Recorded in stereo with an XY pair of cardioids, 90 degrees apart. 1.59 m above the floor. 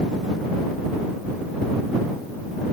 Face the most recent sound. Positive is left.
No sound to turn to.